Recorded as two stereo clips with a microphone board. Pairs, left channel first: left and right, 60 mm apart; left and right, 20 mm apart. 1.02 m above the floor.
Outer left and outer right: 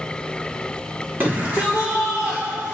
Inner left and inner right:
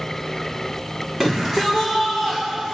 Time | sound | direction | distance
1.2 | a shout | 30° right (ahead or behind) | 3 m